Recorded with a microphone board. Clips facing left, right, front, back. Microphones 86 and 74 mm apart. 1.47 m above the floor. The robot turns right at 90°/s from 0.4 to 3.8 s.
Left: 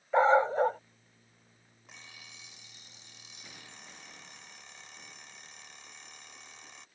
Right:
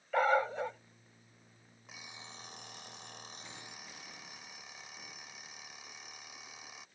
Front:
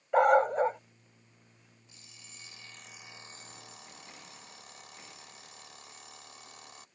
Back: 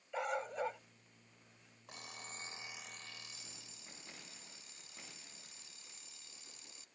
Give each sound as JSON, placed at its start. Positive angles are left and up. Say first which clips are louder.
{"t": 0.1, "sound": "a dog barking", "louder": "left 6 dB, front 16 dB", "azimuth_deg": 25}
{"t": 1.9, "sound": "an alarm clock", "louder": "right 2 dB, back 9 dB", "azimuth_deg": 180}